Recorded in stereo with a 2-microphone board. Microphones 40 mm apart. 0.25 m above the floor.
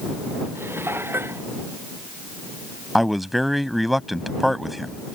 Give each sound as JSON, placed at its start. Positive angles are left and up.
{"t": 0.6, "sound": "dishes clattering", "side_deg": -85}
{"t": 3.0, "sound": "a man speaking", "side_deg": -5}